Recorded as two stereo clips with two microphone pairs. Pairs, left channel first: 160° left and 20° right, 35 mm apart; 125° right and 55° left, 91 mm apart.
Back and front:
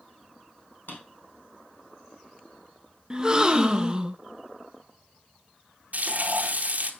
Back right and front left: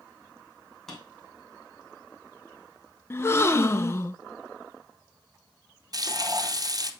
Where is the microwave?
I don't hear a microwave.